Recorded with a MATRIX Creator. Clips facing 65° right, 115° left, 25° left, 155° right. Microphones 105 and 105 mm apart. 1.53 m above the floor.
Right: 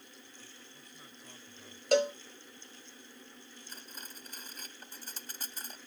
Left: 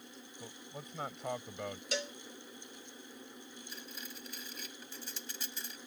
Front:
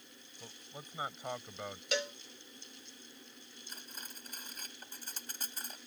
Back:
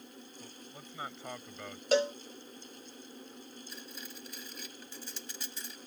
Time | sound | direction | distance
0.4 | a man speaking | 100° left | ?
1.9 | a cowbell | 105° right | ?
3.7 | cutlery clinking | 25° right | ?